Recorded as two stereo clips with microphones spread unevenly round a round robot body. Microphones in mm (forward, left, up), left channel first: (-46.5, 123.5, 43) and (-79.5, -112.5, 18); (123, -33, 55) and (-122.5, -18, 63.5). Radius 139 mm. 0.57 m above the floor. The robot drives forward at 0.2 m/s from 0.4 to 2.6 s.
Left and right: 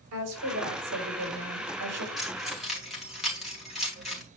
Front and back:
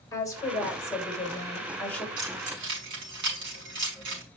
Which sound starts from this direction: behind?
Keys jangling, at 2.2 s.